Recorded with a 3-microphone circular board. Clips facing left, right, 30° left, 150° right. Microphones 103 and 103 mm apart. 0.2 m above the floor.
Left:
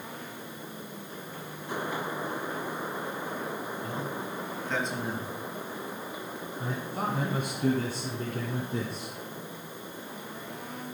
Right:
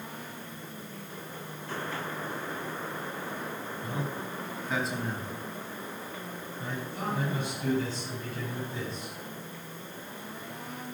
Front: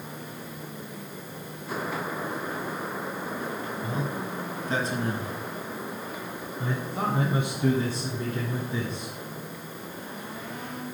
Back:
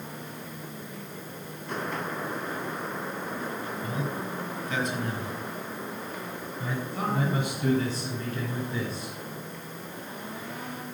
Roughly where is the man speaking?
Ahead right.